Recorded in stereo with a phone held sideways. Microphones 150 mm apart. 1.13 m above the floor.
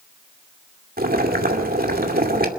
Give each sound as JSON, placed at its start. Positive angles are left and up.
{"t": 1.0, "sound": "boiling", "side_deg": -90, "distance_m": 2.5}